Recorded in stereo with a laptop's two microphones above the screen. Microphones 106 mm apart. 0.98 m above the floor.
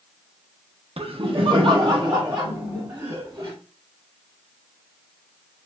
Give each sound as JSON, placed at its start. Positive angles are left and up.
{"t": 1.0, "sound": "laughter", "side_deg": -60, "distance_m": 0.5}